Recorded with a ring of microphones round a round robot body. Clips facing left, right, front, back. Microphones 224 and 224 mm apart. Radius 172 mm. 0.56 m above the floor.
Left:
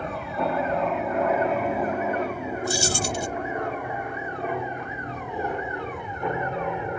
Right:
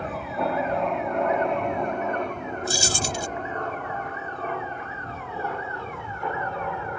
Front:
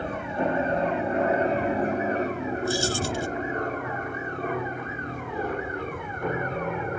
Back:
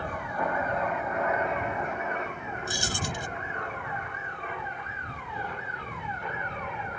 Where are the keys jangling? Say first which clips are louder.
Left 2 dB, front 6 dB; 100° right.